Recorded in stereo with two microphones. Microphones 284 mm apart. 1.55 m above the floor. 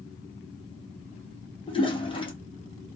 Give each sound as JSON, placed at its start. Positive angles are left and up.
{"t": 1.7, "sound": "a toilet flushing", "side_deg": 20, "distance_m": 0.7}